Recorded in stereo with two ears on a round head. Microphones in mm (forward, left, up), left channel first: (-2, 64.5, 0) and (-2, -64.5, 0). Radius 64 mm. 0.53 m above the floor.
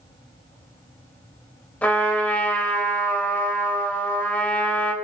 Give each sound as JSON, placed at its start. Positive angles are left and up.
{"t": 1.8, "sound": "a trumpet", "side_deg": 10, "distance_m": 2.0}